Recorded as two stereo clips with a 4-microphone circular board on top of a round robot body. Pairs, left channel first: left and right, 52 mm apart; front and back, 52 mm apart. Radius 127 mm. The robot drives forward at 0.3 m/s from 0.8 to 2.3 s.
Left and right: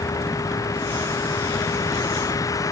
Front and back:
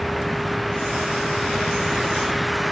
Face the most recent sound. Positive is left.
turn(degrees=90)